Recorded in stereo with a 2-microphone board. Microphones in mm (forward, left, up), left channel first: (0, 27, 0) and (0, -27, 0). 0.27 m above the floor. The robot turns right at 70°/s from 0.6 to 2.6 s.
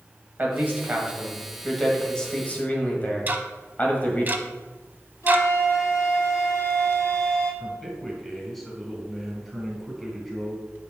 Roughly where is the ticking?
Right.